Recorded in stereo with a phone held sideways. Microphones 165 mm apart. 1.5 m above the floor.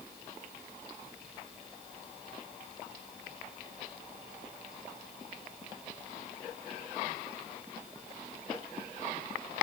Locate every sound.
Only background noise.